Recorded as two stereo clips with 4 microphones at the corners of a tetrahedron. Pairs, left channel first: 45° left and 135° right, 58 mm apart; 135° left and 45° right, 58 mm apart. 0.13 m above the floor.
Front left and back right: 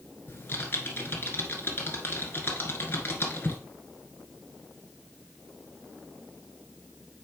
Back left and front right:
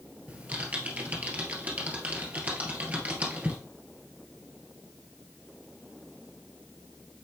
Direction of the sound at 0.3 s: 10° left.